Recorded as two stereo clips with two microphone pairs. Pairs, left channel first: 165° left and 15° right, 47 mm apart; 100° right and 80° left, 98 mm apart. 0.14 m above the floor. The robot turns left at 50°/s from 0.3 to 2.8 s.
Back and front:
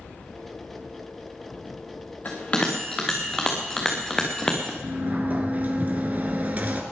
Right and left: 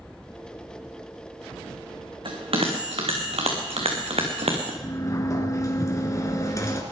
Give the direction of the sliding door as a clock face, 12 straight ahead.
2 o'clock.